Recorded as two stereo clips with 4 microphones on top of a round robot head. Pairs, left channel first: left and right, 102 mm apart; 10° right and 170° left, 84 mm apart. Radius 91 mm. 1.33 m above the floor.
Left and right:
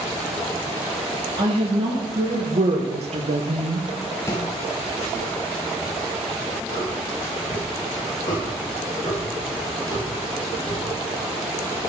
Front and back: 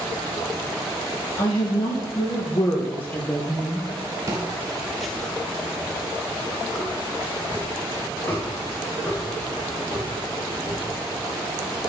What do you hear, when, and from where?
1.4 s a woman speaking: 45° right, 2 m; by 3.9 s 110° right, 1.1 m
4.3 s footsteps: 140° left, 1.5 m; by 10.9 s 45° left, 10.5 m